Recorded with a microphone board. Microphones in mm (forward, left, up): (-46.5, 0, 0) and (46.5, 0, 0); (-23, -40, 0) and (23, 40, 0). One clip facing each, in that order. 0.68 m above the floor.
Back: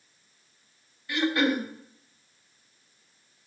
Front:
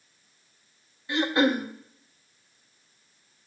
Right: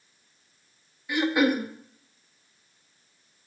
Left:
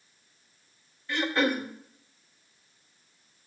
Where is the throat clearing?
50° right, 1.3 m.